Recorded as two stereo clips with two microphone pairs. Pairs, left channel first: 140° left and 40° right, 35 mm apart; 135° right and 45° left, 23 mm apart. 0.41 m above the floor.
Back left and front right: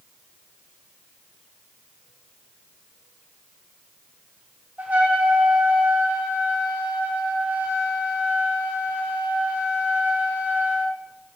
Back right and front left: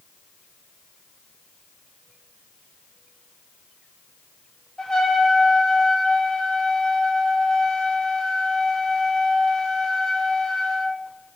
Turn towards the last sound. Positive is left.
turn(degrees=-75)